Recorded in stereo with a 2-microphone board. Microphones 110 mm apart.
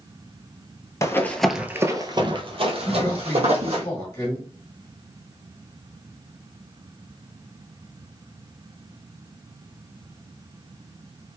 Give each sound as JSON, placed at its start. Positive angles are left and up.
{"t": 1.0, "sound": "running footsteps", "side_deg": 30, "distance_m": 0.6}
{"t": 2.9, "sound": "a man speaking", "side_deg": 25, "distance_m": 1.5}